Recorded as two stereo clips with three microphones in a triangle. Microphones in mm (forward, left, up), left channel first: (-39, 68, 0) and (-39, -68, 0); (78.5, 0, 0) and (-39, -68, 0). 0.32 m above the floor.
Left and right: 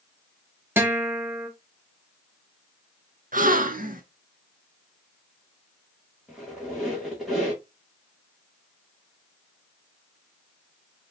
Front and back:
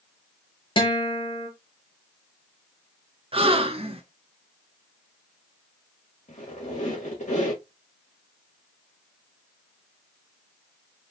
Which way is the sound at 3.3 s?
100° right.